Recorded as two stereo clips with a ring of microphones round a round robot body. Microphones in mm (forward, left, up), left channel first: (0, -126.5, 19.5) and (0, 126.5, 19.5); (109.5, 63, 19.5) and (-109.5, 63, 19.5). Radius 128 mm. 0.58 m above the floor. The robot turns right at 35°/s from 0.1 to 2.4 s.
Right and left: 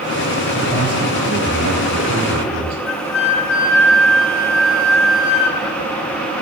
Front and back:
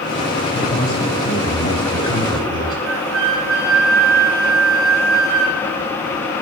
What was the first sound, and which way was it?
A man speaking, 5° left.